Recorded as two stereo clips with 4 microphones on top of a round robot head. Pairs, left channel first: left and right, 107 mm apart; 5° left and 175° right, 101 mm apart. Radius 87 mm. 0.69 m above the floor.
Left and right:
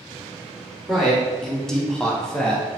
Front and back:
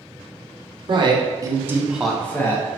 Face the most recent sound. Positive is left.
turn(degrees=10)